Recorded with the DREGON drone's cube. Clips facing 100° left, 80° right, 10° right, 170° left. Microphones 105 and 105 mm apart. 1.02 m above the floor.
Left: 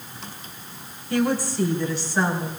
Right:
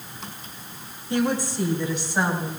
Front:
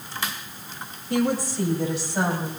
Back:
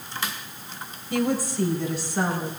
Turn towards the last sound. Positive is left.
turn(degrees=-5)